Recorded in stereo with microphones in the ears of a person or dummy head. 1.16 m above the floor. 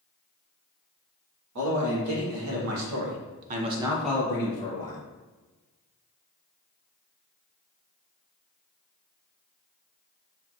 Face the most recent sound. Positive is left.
turn(degrees=35)  # may be behind; listen again after turning